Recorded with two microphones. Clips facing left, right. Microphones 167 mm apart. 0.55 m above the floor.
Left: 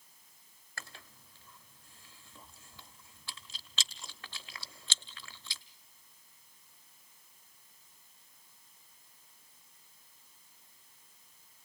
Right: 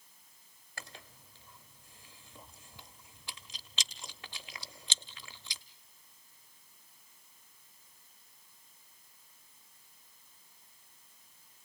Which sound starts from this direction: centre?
Chewing, at 0.8 s.